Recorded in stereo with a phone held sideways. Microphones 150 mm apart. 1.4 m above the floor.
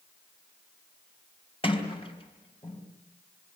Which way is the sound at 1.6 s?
35° left (ahead or behind).